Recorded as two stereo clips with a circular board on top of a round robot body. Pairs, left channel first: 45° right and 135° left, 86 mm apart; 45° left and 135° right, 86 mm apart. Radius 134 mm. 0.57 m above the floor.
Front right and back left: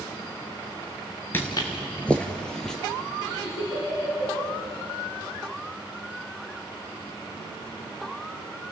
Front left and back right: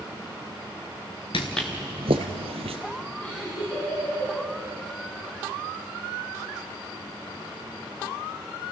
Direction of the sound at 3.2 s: 25° right.